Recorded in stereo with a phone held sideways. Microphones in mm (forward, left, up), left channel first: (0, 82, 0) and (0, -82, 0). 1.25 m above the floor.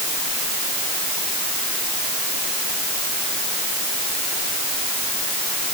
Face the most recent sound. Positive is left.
No sound to turn to.